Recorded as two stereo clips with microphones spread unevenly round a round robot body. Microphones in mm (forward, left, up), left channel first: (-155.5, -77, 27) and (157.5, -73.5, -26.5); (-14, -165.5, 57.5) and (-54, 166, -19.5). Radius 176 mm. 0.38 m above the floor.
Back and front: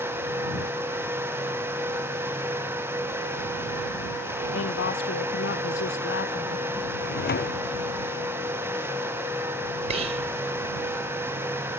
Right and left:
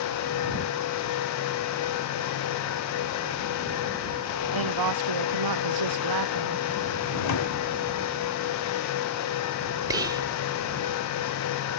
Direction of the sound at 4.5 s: 120° left.